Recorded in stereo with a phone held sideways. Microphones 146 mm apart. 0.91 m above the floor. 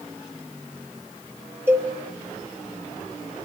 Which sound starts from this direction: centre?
A cowbell, at 1.7 s.